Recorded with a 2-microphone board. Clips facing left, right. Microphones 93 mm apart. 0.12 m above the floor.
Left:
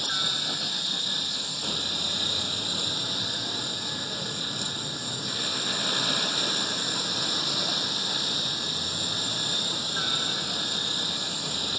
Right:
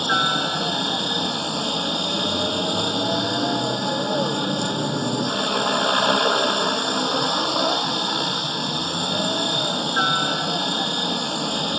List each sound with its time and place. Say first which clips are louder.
0.0 s a helicopter: right 13 dB; 60° right (ahead or behind)